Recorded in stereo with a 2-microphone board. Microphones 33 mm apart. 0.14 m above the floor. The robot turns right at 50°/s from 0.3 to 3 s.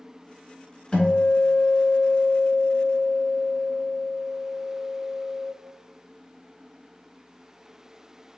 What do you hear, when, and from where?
0.9 s a guitar: 35° left, 1.6 m; by 5.5 s 140° left, 1.6 m